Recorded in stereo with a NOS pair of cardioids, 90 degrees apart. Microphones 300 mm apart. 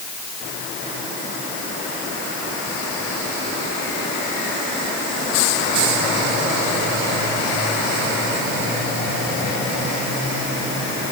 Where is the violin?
I don't hear a violin.